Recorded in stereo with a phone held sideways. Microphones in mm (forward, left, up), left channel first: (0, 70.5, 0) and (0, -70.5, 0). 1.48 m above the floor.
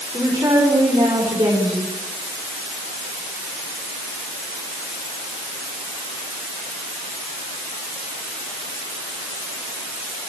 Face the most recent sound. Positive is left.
turn(degrees=-25)  # may be behind; listen again after turning